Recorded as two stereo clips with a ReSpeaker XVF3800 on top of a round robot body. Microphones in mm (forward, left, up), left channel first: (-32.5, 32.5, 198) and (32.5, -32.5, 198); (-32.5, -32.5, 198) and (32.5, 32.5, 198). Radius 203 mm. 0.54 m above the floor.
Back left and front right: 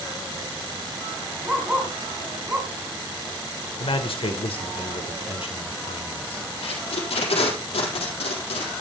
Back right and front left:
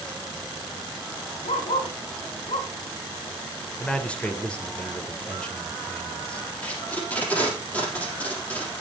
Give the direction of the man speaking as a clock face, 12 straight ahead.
7 o'clock.